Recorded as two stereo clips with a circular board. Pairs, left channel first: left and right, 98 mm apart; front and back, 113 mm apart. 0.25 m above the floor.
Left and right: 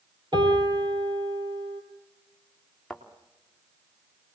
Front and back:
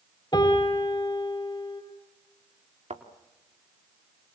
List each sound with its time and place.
0.3 s a piano: 50° right, 4 m
2.9 s a thud: 175° left, 3 m